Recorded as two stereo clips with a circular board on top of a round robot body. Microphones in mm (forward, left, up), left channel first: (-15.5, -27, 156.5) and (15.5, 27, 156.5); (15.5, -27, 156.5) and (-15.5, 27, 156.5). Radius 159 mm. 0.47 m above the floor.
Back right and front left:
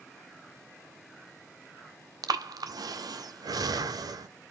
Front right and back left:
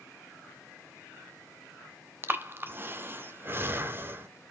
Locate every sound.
2.2 s breathing: 65° left, 0.7 m